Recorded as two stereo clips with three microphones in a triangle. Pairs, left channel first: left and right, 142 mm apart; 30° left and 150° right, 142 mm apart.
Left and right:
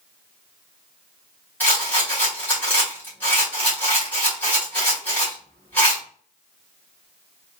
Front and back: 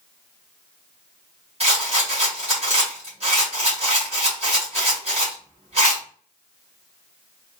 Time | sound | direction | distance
1.6 | a rattle | 170° left | 2 m